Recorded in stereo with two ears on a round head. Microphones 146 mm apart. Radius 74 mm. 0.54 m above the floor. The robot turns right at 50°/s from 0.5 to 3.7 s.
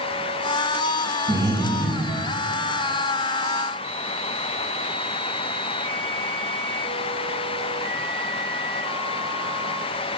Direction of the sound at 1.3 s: 30° right (ahead or behind).